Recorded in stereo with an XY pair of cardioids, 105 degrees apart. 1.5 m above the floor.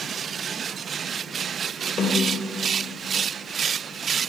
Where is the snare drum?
40° left, 3.5 m.